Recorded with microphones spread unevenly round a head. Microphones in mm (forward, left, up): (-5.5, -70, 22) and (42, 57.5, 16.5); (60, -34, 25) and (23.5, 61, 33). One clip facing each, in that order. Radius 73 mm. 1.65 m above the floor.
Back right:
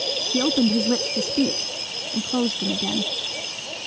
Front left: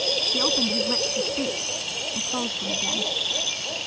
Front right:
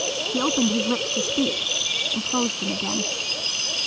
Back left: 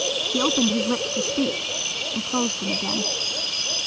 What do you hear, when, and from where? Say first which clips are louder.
0.3 s a woman speaking: back right 8 dB, even; 160° right